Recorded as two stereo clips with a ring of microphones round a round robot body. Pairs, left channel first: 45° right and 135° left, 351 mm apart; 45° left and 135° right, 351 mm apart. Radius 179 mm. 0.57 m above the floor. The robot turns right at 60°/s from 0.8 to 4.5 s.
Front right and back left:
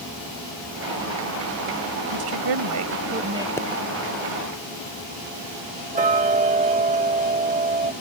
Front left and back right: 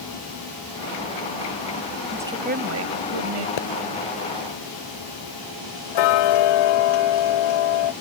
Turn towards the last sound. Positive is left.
turn(degrees=65)